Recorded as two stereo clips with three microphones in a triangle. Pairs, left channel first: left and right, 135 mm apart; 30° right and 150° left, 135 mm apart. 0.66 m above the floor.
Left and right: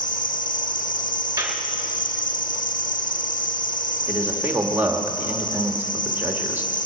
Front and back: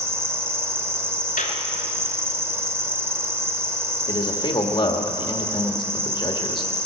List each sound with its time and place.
0.0 s an insect: 80° left, 0.8 m
1.4 s a clap: 20° right, 2 m
4.1 s a man speaking: 20° right, 1.3 m